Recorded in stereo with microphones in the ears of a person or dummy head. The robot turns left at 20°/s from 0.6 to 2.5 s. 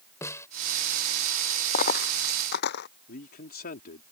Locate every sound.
0.2 s a snare drum: 15° left (ahead or behind)
1.7 s a dropped coin: 45° left (ahead or behind); by 2.9 s 60° left (ahead or behind)
3.1 s a man speaking: 50° left (ahead or behind)